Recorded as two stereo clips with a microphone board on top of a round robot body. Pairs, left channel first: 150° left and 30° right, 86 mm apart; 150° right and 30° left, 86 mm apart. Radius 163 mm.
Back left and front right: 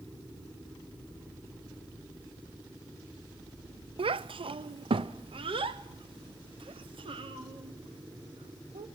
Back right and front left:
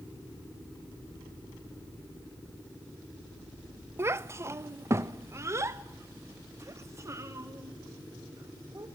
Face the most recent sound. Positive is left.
turn(degrees=-30)